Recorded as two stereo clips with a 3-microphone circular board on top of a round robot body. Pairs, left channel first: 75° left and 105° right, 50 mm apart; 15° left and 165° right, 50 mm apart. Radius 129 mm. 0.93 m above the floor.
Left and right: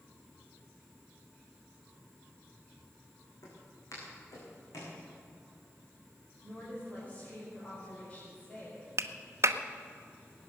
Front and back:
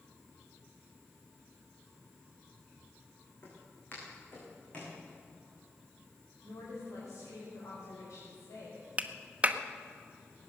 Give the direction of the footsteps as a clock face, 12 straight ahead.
10 o'clock.